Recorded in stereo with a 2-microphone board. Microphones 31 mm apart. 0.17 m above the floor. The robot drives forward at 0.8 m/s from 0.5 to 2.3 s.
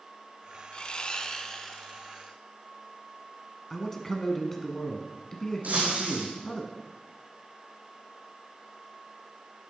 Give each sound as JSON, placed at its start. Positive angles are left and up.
{"t": 0.7, "sound": "sawing", "side_deg": 35, "distance_m": 0.6}
{"t": 3.7, "sound": "a man speaking", "side_deg": 15, "distance_m": 1.5}
{"t": 5.6, "sound": "breaking glass", "side_deg": -60, "distance_m": 3.0}